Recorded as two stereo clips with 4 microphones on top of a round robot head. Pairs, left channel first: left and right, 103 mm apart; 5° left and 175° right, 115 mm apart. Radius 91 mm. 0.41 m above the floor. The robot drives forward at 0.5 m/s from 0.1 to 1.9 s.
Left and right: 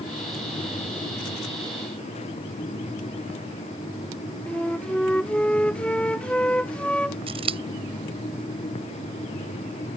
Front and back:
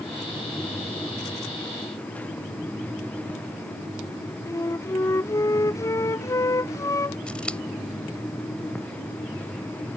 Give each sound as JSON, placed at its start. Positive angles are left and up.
{"t": 4.5, "sound": "a flute", "azimuth_deg": 20}
{"t": 7.3, "sound": "scissors", "azimuth_deg": -75}